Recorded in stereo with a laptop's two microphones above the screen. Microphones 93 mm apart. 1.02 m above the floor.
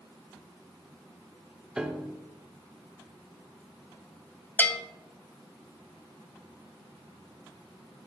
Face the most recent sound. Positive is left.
turn(degrees=20)  # may be behind; listen again after turning